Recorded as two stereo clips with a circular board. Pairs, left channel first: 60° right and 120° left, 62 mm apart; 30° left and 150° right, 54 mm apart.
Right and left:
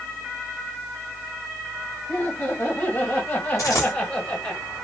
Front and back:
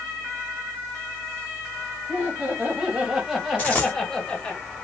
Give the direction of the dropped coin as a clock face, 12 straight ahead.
1 o'clock.